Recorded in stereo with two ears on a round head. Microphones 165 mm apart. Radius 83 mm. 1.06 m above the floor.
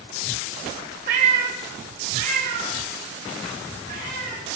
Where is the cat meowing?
45° right (ahead or behind), 0.9 m; by 4.4 s 50° right (ahead or behind), 2.5 m.